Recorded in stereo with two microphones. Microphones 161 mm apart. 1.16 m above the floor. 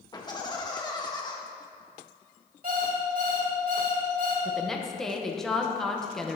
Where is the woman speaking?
Centre (ahead or behind), 1.0 m.